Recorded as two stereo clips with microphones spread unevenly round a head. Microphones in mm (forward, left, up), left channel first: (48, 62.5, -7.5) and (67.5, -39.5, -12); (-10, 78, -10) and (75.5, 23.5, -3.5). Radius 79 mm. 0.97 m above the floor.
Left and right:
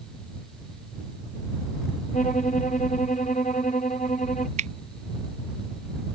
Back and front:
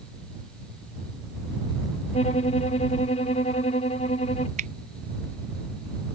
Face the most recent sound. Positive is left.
turn(degrees=-75)